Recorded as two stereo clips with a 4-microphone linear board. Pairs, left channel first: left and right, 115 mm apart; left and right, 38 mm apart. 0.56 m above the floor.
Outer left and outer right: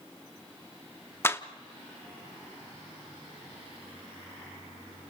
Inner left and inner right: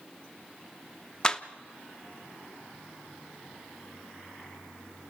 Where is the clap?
20° left (ahead or behind), 0.8 m.